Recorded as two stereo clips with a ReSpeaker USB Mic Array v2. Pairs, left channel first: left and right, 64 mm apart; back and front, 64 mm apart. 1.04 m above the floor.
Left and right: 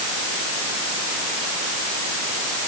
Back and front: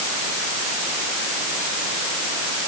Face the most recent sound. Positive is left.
No sound to turn to.